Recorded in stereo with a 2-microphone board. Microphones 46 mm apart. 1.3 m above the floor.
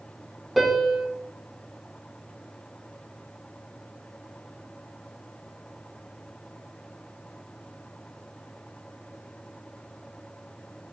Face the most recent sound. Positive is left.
turn(degrees=0)  # may be behind; listen again after turning